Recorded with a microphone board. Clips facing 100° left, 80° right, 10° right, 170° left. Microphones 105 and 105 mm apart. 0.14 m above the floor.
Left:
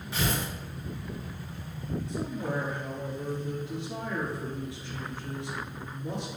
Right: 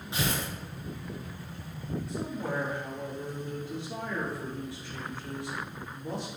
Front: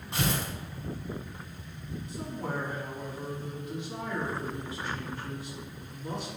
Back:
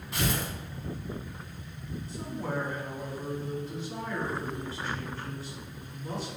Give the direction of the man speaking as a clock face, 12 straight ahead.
10 o'clock.